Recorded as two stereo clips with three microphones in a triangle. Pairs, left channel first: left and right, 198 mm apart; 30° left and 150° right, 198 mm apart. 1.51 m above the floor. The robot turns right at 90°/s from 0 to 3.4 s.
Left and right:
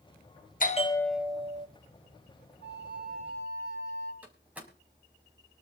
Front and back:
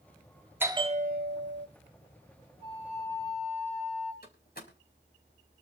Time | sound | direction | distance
0.6 | a bell | 135° left | 0.7 m
2.6 | a flute | 90° right | 4.5 m
4.2 | a door slam | 5° right | 4.5 m